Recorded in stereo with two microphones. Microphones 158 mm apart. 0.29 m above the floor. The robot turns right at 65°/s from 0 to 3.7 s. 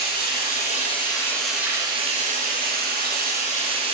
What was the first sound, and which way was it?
Running water, 85° left.